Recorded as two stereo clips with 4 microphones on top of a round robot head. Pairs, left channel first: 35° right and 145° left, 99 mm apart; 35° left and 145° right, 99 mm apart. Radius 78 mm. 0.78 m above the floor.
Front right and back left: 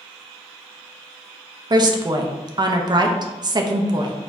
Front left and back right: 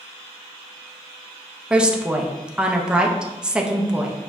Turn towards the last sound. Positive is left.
turn(degrees=140)